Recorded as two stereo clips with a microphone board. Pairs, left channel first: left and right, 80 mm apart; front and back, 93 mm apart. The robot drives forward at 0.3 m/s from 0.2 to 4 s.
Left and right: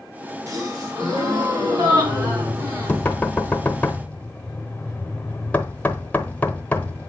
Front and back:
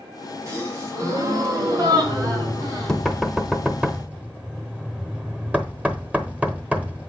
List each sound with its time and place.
0.5 s a gasp: 125° right, 3 m; by 3.0 s 140° right, 3.5 m
2.0 s knocking: 40° left, 1.0 m; by 7.1 s 135° left, 1.0 m